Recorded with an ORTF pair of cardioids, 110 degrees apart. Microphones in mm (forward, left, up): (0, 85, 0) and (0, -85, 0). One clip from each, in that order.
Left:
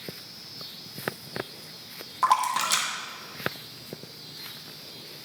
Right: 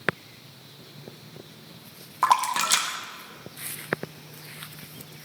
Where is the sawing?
I don't hear sawing.